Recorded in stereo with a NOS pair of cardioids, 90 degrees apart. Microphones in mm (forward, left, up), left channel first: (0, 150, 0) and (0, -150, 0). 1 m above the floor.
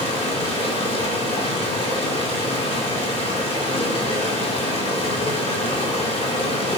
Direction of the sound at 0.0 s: 20° left.